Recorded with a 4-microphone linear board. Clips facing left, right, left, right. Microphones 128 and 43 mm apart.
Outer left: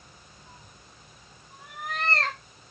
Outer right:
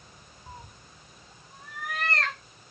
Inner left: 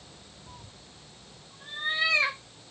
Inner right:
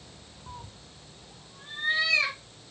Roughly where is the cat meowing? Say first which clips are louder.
Outer right 8 dB, inner right 7 dB; right.